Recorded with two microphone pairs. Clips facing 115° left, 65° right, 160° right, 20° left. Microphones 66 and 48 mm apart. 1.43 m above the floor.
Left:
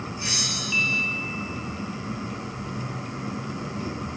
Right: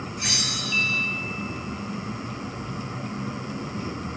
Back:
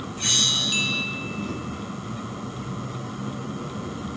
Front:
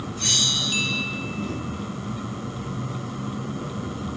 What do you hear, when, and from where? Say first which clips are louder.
0.2 s a bell: right 1 dB, even; 95° right, 6.5 m